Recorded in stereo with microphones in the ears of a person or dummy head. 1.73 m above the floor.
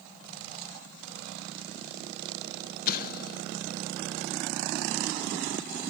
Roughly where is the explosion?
Left.